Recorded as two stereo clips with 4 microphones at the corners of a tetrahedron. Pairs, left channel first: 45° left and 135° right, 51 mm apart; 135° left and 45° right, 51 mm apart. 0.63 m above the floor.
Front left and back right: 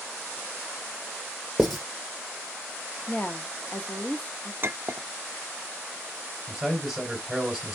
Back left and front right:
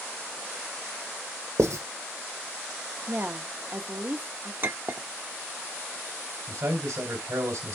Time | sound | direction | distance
1.6 | writing | 45° right | 2 m
3.1 | a woman speaking | 5° right | 0.8 m
4.6 | a clink | 90° right | 0.5 m
6.5 | a man speaking | 40° right | 3 m